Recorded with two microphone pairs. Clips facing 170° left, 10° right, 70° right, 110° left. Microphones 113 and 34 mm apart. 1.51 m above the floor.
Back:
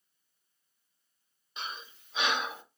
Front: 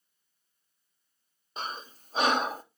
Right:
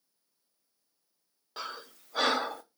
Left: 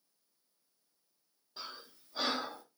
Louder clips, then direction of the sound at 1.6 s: Front 5 dB, right 7 dB; 60° right.